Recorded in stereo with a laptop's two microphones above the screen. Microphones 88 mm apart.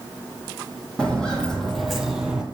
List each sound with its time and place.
1.0 s footsteps: 10° left (ahead or behind), 2 m; by 2.4 s 10° right (ahead or behind), 1.3 m